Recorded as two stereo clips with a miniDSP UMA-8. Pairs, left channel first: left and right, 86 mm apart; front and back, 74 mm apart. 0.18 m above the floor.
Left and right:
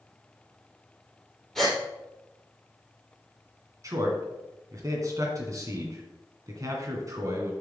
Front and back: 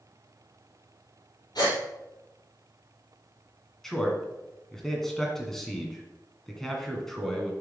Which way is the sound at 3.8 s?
80° right.